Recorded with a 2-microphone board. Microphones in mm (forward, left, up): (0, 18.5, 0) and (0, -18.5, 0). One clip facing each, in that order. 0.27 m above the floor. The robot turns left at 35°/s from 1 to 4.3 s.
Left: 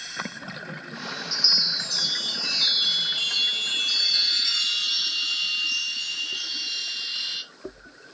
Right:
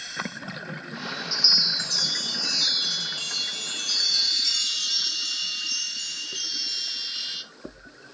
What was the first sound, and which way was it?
A chime, 175° left.